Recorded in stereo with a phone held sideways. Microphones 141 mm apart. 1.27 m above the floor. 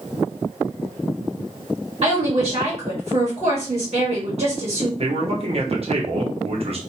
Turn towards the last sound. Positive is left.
turn(degrees=-50)  # may be behind; listen again after turning